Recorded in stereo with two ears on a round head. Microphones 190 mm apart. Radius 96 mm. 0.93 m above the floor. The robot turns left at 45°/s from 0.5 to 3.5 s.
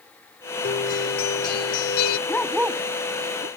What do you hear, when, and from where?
0.6 s a guitar: 135° left; by 2.2 s 65° left
2.3 s a dog barking: 10° left (ahead or behind); by 3.5 s 45° right (ahead or behind)